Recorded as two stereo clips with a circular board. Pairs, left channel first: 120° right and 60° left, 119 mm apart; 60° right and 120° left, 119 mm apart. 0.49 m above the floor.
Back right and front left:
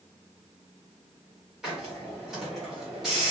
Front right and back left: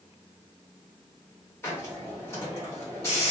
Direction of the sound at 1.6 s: 25° right.